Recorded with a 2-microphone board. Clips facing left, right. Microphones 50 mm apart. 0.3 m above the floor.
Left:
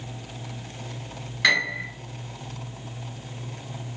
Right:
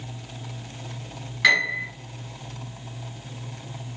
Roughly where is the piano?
Centre.